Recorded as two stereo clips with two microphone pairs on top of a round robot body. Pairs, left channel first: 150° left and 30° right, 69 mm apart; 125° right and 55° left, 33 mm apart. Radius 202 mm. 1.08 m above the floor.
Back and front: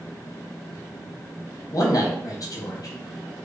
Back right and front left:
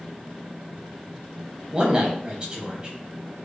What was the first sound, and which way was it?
A man speaking, 120° left.